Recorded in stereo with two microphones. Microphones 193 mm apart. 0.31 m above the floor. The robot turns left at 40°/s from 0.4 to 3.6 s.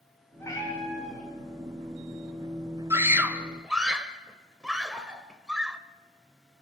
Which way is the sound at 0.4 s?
165° left.